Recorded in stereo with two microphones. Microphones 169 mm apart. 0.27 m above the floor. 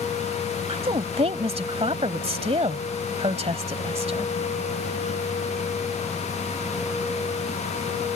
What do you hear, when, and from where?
0.7 s a woman speaking: 35° right (ahead or behind)